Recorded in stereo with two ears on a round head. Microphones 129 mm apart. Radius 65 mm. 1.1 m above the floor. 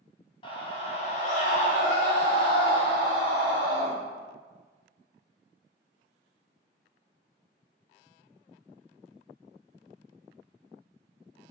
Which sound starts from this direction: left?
A scream, at 0.4 s.